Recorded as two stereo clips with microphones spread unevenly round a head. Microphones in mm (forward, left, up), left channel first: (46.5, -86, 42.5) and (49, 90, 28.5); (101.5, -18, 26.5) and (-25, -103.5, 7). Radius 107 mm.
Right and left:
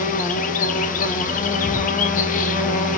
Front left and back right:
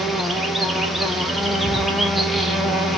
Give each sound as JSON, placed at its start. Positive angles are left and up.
{"t": 0.0, "sound": "an insect", "azimuth_deg": -65, "distance_m": 0.7}